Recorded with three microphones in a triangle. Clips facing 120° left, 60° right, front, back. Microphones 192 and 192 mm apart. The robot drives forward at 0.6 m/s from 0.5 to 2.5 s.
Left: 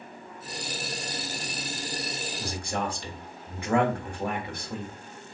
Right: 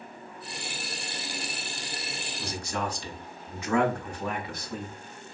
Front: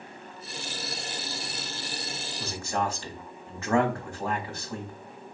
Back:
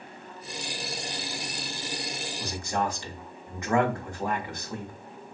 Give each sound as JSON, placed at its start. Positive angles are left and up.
{"t": 2.4, "sound": "a man speaking", "azimuth_deg": 105, "distance_m": 1.0}